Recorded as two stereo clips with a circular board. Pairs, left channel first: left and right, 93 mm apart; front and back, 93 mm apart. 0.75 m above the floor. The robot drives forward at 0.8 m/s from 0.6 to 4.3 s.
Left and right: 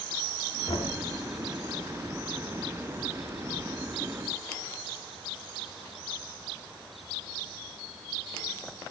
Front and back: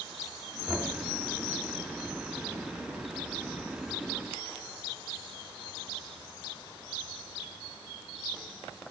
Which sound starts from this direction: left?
Knocking, at 0.7 s.